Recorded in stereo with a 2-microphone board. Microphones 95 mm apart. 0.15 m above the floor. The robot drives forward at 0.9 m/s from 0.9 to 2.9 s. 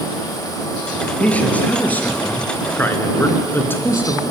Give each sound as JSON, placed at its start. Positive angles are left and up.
{"t": 1.2, "sound": "a man speaking", "side_deg": 15, "distance_m": 3.0}